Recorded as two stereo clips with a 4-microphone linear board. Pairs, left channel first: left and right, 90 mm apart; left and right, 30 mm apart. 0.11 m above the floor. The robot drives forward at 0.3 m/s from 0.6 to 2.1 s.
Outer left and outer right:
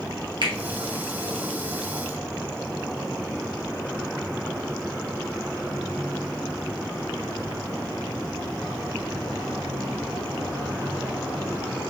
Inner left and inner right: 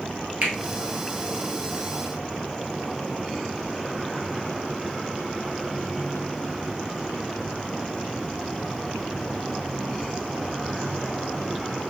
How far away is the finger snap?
About 1.7 m.